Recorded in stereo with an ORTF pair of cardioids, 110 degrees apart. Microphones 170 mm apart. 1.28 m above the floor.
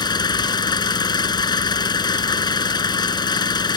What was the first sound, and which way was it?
An engine running, 25° left.